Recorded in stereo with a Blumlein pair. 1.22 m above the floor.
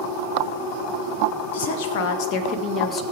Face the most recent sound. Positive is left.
turn(degrees=25)